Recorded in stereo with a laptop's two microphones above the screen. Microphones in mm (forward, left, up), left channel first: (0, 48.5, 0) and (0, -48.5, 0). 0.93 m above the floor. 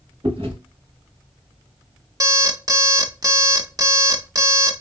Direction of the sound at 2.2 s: 40° right (ahead or behind).